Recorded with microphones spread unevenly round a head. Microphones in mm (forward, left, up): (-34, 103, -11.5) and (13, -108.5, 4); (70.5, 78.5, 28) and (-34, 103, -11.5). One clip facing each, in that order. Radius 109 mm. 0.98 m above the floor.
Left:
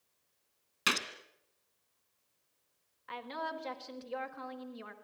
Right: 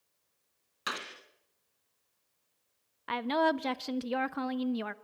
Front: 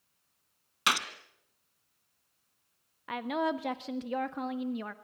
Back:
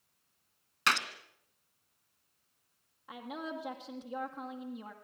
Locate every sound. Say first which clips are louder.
0.9 s a gunshot: left 4 dB, front 1 dB; 55° left, 2 m
3.1 s a woman speaking: right 13 dB, front 10 dB; 70° right, 1.3 m